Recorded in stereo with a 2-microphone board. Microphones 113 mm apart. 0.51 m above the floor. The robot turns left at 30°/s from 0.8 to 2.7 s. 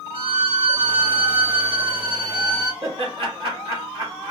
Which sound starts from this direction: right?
Laughter, at 2.8 s.